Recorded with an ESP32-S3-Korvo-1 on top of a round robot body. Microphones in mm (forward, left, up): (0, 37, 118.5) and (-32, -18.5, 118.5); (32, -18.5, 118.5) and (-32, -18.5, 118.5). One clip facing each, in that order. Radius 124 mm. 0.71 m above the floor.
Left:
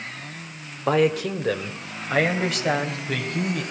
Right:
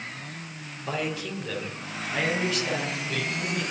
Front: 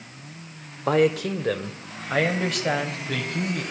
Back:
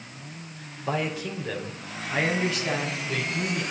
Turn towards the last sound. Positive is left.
turn(degrees=30)